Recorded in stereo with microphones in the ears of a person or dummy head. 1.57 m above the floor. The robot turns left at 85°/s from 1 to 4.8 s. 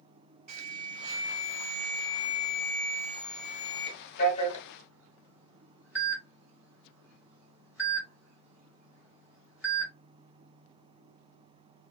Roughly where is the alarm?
Right.